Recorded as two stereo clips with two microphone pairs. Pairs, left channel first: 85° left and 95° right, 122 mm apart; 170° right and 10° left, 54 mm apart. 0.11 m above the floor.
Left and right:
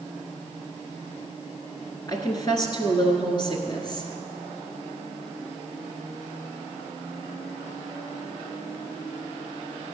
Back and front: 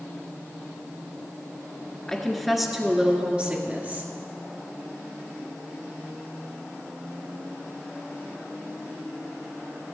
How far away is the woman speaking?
About 1.4 m.